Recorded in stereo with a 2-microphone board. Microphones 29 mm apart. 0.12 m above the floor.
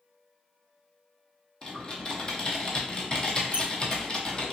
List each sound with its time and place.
1.6 s typing on a keyboard: 30° left (ahead or behind), 1.1 m
3.5 s a squeak: 55° left (ahead or behind), 0.7 m